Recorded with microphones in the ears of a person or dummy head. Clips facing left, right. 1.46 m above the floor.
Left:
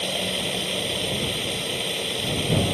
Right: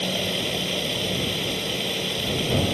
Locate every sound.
0.0 s running water: centre (ahead or behind)